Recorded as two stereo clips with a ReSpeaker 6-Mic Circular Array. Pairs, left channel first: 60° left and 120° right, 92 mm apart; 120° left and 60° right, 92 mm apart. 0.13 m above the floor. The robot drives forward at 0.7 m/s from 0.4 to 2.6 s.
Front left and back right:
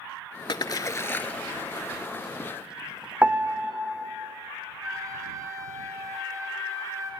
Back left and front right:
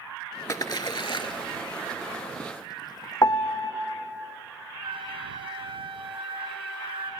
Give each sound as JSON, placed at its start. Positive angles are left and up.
{"t": 0.5, "sound": "a splash", "azimuth_deg": 75, "distance_m": 0.6}
{"t": 3.2, "sound": "a piano", "azimuth_deg": 170, "distance_m": 1.3}
{"t": 4.8, "sound": "a flute", "azimuth_deg": -65, "distance_m": 3.0}